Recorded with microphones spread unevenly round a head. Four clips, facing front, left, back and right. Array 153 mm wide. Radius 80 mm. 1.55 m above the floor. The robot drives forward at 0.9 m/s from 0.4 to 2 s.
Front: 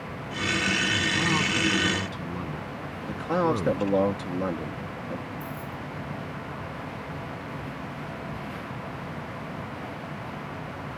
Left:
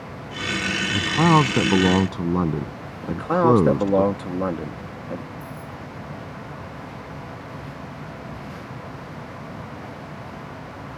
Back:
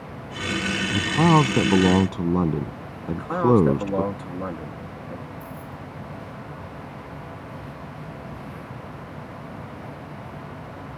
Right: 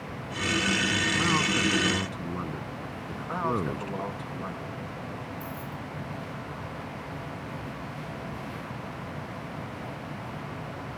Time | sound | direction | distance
0.9 | a man speaking | 135° left | ?
3.0 | a man speaking | 75° left | ?
5.4 | keys jangling | 40° right | ?